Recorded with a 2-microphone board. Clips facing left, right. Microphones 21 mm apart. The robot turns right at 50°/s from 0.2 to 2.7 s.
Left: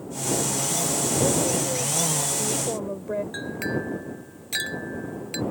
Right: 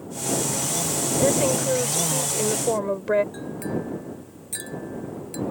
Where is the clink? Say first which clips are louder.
Left 1 dB; 45° left (ahead or behind).